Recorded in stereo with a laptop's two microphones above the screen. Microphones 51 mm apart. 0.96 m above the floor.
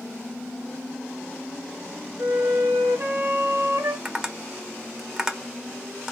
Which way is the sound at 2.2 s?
75° right (ahead or behind).